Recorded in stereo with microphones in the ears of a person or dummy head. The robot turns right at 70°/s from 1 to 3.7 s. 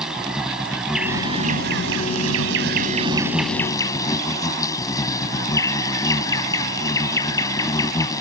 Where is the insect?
175° right; by 8.2 s 15° left.